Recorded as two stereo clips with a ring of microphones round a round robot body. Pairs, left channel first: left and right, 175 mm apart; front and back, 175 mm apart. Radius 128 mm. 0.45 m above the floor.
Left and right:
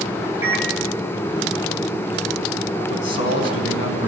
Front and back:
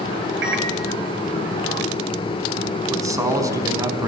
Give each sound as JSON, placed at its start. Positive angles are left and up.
{"t": 0.4, "sound": "a microwave", "azimuth_deg": -170, "distance_m": 2.5}
{"t": 2.9, "sound": "a man speaking", "azimuth_deg": 110, "distance_m": 5.0}